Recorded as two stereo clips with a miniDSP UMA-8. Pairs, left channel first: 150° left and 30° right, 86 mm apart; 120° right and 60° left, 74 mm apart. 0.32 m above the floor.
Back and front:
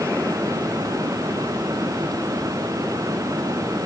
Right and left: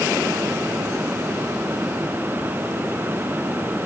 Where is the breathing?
No breathing in this recording.